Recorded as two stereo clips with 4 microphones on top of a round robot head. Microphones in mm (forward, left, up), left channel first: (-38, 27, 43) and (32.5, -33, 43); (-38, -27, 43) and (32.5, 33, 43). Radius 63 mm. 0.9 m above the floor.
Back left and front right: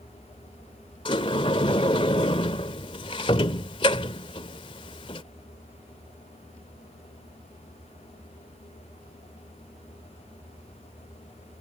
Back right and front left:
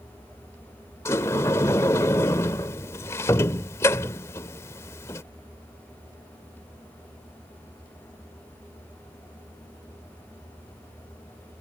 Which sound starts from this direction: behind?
A sliding door, at 1.1 s.